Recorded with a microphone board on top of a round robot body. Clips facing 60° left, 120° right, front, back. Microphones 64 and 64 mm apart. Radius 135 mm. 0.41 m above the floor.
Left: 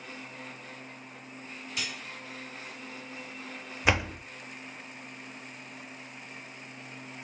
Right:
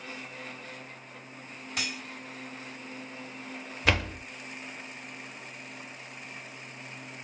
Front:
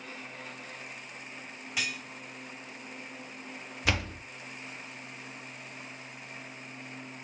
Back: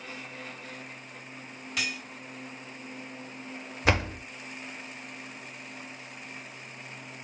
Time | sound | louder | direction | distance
1.8 | cutlery clinking | right 2 dB, back 1 dB | 75° right | 2 m
3.9 | a door slam | left 1 dB, back 5 dB | 130° left | 0.6 m